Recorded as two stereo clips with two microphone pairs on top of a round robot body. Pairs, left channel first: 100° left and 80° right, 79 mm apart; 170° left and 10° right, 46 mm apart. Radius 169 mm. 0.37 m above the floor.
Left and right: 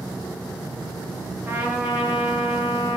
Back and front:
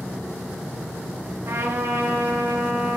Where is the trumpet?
15° right, 2.5 m.